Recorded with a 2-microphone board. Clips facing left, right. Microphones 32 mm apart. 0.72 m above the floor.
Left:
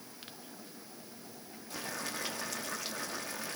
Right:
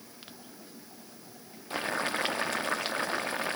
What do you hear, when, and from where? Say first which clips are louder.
1.7 s boiling: right 9 dB; 45° right (ahead or behind), 0.8 m